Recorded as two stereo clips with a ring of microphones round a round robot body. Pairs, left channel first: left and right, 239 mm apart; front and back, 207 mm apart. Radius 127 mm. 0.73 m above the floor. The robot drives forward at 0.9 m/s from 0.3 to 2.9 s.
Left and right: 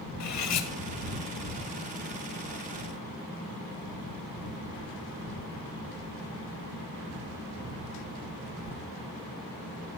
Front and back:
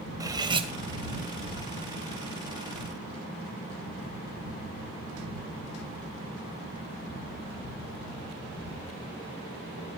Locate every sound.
0.2 s cutlery clinking: 105° left, 2.0 m; by 0.7 s 115° left, 2 m